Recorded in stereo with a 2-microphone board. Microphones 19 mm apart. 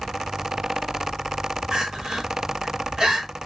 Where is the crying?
35° right (ahead or behind), 1.3 m.